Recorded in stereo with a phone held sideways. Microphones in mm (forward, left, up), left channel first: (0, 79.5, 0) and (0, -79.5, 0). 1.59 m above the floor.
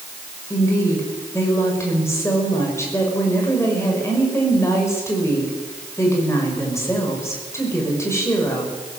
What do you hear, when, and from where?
0.5 s a woman speaking: 15° left (ahead or behind), 6.5 m